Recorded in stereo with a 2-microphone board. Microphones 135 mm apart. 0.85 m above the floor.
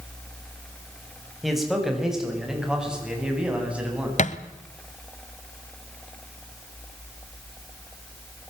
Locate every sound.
1.4 s a man speaking: centre (ahead or behind), 6 m; by 4.1 s 10° right (ahead or behind), 7.5 m
4.2 s a thud: 60° left (ahead or behind), 1.2 m